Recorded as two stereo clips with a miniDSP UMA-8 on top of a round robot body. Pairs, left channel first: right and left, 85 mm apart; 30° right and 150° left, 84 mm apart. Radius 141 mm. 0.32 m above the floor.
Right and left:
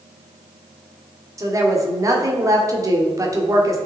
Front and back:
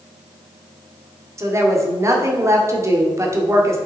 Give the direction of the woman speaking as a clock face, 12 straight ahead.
8 o'clock.